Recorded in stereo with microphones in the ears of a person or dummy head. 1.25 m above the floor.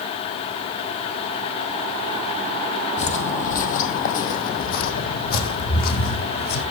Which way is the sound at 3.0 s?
35° left (ahead or behind).